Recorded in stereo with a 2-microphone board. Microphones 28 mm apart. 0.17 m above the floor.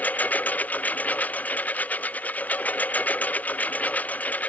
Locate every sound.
0.0 s a lawn mower: 85° left; by 4.5 s 75° left (ahead or behind)